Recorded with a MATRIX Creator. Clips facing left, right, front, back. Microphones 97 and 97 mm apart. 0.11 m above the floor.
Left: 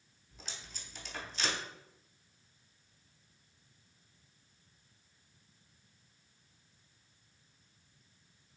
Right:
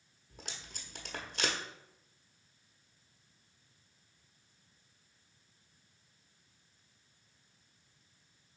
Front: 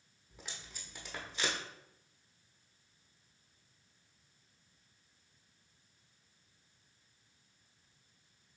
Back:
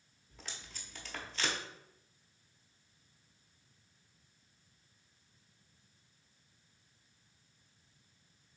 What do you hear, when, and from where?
0.3 s tape being pulled: 70° right, 0.8 m